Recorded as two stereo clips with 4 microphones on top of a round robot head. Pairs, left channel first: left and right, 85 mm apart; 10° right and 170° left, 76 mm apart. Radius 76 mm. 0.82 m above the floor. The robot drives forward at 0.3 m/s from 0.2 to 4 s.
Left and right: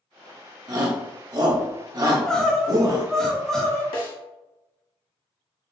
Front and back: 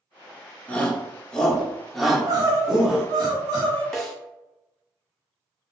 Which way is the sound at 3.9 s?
75° left.